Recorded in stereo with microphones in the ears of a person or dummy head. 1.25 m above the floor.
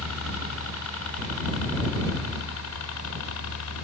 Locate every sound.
0.0 s a helicopter: 75° left (ahead or behind)